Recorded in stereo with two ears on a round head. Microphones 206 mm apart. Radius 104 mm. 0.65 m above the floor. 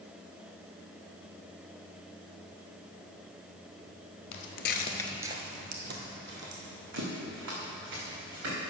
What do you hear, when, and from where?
4.3 s footsteps: 60° left (ahead or behind), 1.2 m; by 8.5 s 60° right (ahead or behind), 5 m